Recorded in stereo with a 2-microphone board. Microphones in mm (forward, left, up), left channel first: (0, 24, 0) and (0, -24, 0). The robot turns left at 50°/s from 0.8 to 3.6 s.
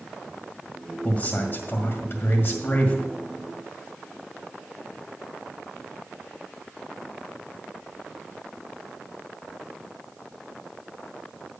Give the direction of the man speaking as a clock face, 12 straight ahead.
7 o'clock.